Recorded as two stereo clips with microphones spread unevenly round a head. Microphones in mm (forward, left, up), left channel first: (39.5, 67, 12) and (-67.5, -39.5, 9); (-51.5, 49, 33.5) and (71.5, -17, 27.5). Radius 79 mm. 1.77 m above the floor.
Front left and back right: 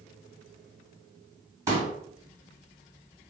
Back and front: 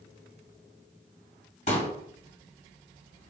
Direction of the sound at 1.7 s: 160° left.